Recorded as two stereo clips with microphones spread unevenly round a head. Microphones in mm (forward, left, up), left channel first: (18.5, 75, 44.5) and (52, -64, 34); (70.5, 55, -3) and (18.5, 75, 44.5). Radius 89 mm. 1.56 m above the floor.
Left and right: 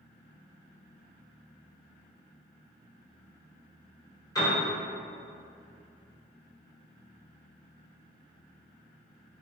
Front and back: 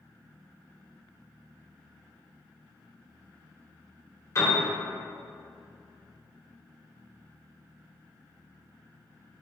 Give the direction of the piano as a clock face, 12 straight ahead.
11 o'clock.